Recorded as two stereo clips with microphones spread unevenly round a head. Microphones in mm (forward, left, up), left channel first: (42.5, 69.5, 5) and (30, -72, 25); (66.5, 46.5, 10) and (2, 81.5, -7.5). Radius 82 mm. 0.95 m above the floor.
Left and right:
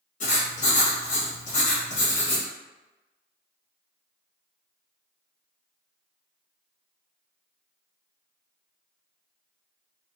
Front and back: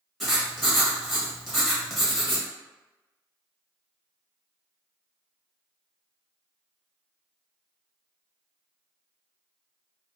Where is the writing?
65° left, 1.4 m.